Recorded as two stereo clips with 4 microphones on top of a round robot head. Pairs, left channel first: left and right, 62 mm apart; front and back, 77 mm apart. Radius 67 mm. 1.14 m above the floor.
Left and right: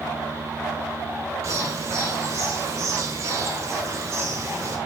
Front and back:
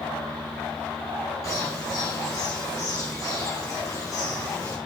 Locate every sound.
1.4 s a bird: 50° right, 1.7 m